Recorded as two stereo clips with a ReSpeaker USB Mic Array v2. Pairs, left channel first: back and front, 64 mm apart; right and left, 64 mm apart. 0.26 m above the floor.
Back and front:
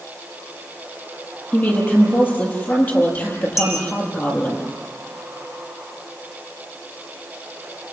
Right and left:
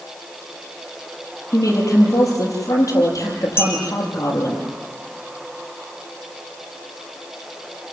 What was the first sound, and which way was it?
A woman speaking, 120° right.